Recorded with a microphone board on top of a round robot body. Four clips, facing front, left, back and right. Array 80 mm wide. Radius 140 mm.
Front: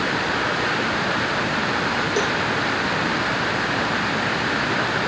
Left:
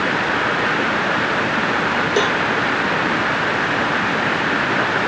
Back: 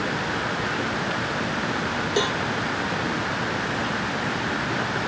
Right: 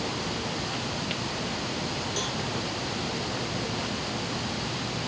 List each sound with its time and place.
0.0 s running water: 75° left
2.2 s a cowbell: 100° left